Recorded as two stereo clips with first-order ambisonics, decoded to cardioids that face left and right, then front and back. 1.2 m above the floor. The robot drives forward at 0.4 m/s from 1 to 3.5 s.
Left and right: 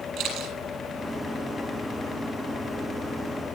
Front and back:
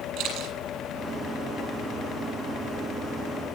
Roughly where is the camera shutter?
Behind right.